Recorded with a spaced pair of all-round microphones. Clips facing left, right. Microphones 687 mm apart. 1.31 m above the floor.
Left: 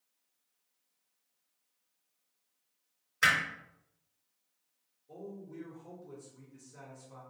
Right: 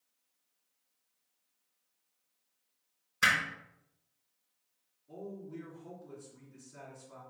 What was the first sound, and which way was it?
Hammering, 30° right (ahead or behind).